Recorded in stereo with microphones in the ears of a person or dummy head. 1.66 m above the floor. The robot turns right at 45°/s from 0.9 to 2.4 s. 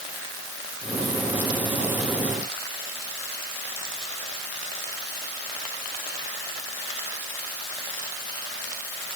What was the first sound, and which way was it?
Only background noise.